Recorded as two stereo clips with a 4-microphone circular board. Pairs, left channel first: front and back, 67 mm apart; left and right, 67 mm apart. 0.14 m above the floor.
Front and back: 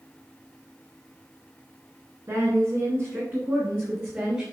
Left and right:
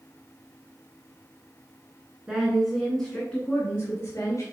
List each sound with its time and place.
2.3 s a woman speaking: 165° right, 2 m; by 4.4 s 115° left, 2.5 m